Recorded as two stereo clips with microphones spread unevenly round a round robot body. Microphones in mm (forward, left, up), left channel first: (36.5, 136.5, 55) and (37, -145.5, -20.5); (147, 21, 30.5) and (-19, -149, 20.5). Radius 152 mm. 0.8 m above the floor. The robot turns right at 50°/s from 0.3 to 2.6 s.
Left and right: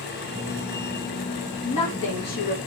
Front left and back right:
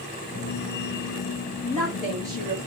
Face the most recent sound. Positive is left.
turn(degrees=170)